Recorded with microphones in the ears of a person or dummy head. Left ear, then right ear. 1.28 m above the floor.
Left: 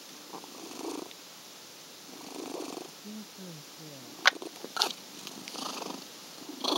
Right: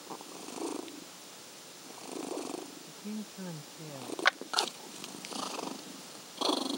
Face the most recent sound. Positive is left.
turn(degrees=15)  # may be behind; listen again after turning